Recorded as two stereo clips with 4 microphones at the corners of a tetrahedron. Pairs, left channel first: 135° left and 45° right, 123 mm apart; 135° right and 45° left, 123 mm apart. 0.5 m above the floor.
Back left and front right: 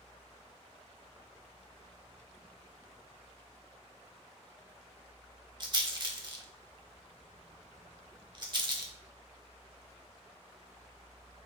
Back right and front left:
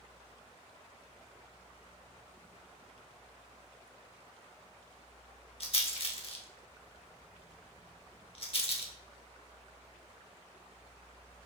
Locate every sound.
5.6 s a rattle: 95° right, 0.8 m